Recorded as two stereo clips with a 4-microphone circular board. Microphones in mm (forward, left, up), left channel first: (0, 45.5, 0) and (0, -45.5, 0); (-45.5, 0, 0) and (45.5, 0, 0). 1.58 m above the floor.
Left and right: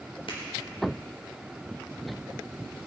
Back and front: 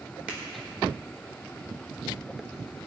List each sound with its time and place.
0.3 s a finger snap: 75° left, 5 m